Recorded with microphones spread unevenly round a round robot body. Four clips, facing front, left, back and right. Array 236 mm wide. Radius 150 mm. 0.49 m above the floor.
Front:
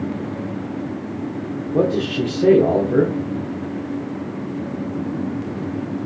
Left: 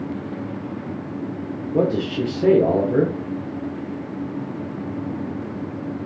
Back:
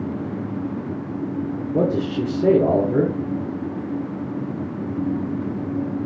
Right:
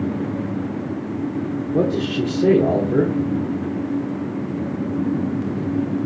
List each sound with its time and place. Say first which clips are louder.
1.7 s a man speaking: even, front 2 dB; 130° right, 1.7 m